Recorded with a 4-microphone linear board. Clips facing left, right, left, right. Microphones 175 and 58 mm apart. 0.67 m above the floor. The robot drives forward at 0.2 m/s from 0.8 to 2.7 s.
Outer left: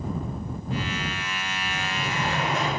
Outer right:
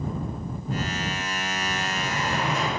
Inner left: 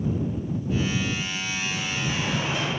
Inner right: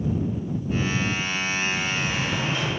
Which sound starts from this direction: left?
A sliding door, at 1.7 s.